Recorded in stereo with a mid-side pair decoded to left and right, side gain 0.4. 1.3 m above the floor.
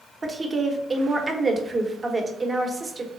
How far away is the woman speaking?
About 1.1 m.